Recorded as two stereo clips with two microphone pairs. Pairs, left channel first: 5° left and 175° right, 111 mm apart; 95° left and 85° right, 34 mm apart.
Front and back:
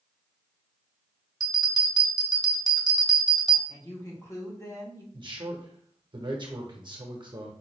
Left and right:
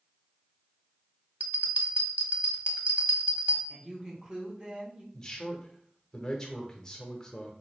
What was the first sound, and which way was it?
A bell, 125° right.